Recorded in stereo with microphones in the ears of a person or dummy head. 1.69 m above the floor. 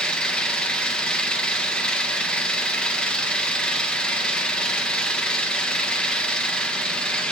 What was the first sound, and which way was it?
An engine running, 10° left (ahead or behind).